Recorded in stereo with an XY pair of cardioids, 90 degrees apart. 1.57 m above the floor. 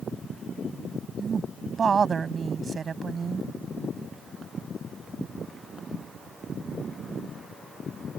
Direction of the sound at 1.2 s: 45° right.